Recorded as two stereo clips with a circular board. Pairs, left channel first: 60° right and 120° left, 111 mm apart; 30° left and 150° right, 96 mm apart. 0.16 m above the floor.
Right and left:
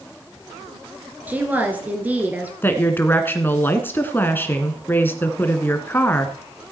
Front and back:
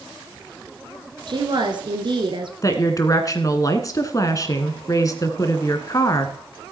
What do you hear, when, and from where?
1.3 s a woman speaking: 165° right, 2 m
2.6 s a woman speaking: straight ahead, 1.5 m